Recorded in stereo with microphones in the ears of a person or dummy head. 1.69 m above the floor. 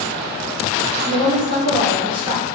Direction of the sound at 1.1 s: 25° right (ahead or behind).